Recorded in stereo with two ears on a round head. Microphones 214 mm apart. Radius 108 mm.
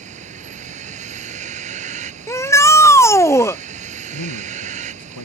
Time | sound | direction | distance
0.0 | a vehicle | 30° right (ahead or behind) | ?
2.3 | a shout | 10° left (ahead or behind) | ?
4.1 | a man speaking | 80° left | ?